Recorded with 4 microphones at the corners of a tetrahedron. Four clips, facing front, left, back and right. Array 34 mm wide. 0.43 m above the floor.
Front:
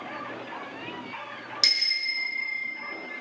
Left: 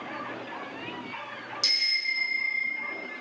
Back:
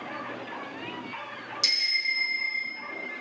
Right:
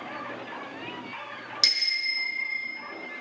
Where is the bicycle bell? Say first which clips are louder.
Right 1 dB, front 1 dB; 50° right, 4.5 m; by 2.7 s 45° right, 3 m.